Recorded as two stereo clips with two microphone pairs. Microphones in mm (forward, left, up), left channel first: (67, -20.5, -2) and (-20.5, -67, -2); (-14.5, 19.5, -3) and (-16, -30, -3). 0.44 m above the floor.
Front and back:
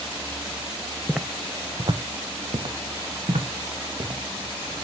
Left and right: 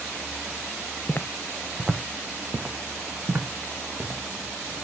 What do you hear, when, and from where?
1.1 s footsteps: 115° left, 0.5 m; by 4.8 s 150° right, 3 m